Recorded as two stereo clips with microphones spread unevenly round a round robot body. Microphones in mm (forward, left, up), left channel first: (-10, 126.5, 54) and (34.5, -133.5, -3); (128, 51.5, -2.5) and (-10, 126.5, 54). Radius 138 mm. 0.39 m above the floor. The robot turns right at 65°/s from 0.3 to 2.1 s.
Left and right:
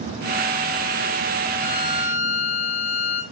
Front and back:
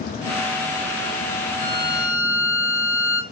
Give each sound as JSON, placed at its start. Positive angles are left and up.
{"t": 1.6, "sound": "a violin", "azimuth_deg": 70, "distance_m": 3.5}